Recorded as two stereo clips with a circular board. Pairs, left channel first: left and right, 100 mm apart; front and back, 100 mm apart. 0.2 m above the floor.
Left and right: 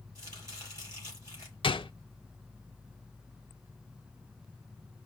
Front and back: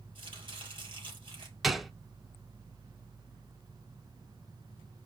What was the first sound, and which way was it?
Chopping, 145° right.